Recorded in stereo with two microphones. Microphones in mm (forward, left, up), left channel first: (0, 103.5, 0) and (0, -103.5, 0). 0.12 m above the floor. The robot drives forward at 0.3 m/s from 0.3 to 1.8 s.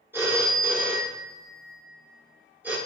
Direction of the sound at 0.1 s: 10° right (ahead or behind).